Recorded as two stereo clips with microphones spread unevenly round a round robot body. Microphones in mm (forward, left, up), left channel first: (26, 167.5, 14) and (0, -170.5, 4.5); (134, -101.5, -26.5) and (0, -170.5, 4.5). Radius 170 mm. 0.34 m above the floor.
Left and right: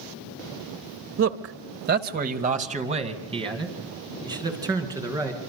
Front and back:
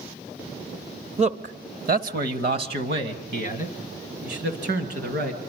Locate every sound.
1.2 s a man speaking: 115° right, 1.2 m; by 5.4 s 175° right, 4 m